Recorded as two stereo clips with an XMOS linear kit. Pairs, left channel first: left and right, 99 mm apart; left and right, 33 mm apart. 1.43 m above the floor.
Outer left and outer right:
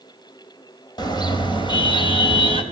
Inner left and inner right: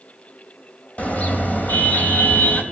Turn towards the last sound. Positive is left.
turn(degrees=65)  # may be behind; listen again after turning